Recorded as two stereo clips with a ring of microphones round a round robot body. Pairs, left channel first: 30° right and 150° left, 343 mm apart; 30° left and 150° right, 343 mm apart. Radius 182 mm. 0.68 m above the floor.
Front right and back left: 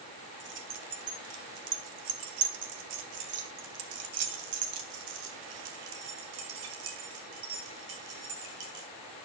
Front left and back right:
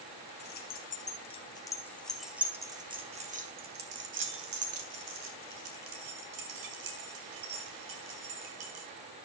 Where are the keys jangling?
90° left, 3 m; by 8.9 s 175° right, 6 m.